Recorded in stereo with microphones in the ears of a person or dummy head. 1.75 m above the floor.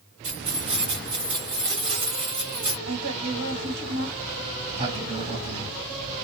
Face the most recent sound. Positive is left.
turn(degrees=-35)  # may be behind; listen again after turning